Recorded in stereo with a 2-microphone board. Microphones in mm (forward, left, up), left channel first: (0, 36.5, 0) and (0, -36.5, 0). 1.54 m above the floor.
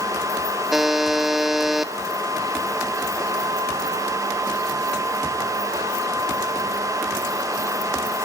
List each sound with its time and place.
0.7 s a buzzer: 5° right (ahead or behind), 1.1 m